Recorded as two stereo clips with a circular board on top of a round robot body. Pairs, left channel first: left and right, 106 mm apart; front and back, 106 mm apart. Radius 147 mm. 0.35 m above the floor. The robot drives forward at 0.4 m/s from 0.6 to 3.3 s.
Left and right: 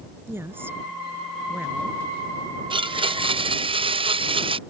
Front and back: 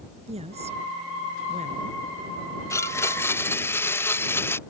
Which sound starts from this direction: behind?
A woman speaking, at 0.3 s.